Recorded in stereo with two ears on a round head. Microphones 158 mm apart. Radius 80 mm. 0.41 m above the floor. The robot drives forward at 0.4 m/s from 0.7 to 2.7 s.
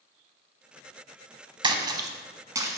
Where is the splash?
25° right (ahead or behind), 0.9 m; by 2.8 s 20° right (ahead or behind), 1.3 m.